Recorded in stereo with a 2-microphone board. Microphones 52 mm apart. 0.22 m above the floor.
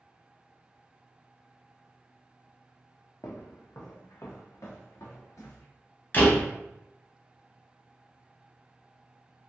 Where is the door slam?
40° left (ahead or behind), 0.9 m.